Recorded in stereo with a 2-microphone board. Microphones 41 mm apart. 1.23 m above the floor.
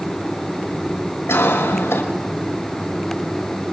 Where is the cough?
85° left, 5.5 m.